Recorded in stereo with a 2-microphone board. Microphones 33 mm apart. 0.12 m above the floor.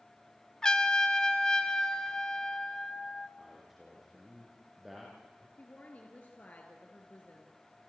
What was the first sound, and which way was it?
A trumpet, 20° left (ahead or behind).